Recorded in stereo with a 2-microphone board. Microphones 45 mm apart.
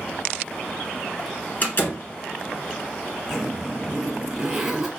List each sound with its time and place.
1.6 s a door slam: 45° left (ahead or behind), 1.4 m
3.3 s a zipper: 5° right (ahead or behind), 1.1 m